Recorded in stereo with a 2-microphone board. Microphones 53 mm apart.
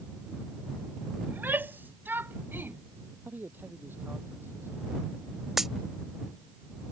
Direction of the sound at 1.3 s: 40° right (ahead or behind).